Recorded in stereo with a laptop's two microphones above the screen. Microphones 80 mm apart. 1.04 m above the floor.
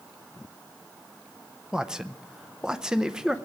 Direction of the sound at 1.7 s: 10° right (ahead or behind).